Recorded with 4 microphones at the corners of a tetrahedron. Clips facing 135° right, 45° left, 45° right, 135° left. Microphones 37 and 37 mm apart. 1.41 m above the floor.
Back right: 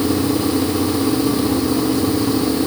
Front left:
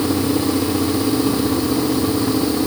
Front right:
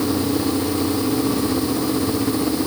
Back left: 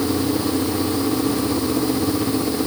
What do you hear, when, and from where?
Only background noise.